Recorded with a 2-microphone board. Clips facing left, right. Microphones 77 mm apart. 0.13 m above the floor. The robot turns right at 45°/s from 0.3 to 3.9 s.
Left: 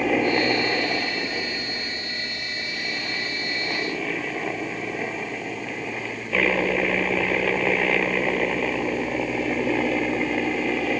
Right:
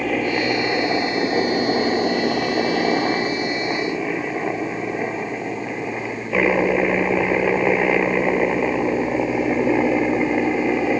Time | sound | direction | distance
0.0 | a helicopter | 175° left | ?